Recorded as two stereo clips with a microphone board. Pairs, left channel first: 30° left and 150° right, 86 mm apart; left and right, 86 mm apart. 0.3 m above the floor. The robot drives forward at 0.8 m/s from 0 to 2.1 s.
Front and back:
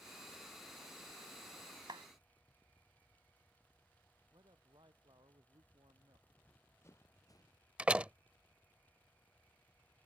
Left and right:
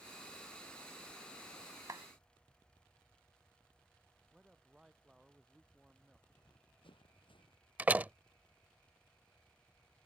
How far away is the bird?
No bird in this recording.